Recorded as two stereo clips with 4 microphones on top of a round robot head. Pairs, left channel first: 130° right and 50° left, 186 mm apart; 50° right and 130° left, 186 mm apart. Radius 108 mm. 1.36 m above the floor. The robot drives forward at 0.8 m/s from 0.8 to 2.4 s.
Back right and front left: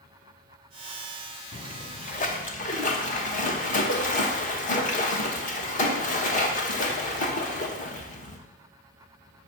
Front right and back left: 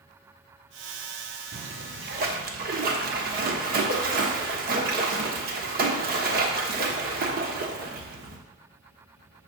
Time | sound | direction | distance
1.5 | a splash | 170° left | 0.6 m